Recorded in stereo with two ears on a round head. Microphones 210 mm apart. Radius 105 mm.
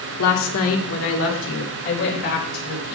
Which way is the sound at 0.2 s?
80° left.